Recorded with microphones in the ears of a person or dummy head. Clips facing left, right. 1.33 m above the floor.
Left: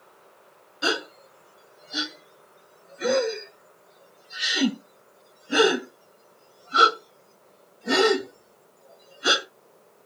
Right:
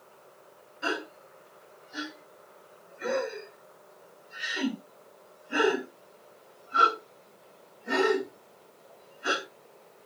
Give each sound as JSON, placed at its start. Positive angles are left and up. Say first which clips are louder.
{"t": 0.8, "sound": "a gasp", "louder": "left 5 dB", "side_deg": 50, "distance_m": 1.5}